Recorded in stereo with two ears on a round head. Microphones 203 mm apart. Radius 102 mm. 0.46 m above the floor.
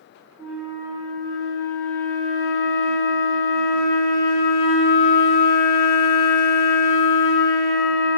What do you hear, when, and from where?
0.4 s a flute: 15° left (ahead or behind), 1.5 m